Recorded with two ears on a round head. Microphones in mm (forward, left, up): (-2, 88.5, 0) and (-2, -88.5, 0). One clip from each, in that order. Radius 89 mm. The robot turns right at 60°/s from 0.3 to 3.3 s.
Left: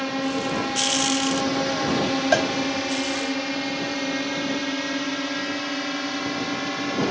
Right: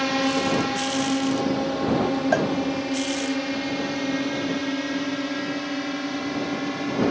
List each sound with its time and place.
0.0 s a drone: 10° right (ahead or behind); by 7.1 s 40° left (ahead or behind)
2.3 s a cowbell: 80° left; by 2.5 s 85° left